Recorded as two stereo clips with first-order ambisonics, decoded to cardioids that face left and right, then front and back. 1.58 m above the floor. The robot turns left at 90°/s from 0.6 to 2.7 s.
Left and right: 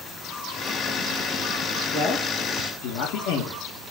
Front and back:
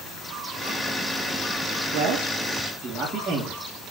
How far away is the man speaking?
About 1.8 m.